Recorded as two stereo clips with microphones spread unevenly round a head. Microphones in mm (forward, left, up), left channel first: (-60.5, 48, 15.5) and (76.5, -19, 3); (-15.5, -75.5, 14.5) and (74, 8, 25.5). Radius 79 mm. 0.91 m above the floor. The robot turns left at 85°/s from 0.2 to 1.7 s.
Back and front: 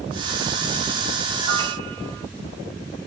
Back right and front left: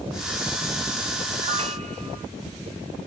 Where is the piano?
40° left, 0.8 m; by 2.3 s 10° left, 0.8 m.